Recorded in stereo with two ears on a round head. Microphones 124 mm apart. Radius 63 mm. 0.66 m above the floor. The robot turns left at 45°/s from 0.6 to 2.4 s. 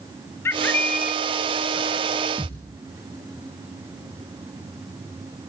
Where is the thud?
15° right (ahead or behind), 6 m.